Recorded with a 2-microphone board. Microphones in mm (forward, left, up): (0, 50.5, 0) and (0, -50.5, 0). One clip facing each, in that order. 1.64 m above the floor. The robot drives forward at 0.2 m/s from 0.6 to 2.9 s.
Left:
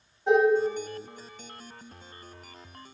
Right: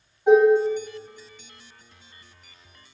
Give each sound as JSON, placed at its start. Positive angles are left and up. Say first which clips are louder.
{"t": 0.3, "sound": "dishes clattering", "louder": "right 6 dB", "side_deg": -15, "distance_m": 1.3}